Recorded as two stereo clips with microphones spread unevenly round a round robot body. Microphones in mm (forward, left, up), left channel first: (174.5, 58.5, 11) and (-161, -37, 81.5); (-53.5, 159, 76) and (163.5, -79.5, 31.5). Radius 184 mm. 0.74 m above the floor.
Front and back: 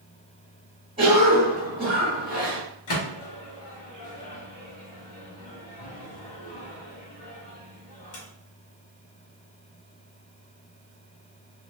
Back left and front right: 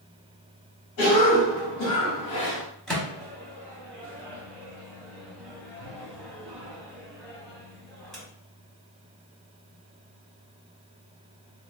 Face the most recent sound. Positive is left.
turn(degrees=40)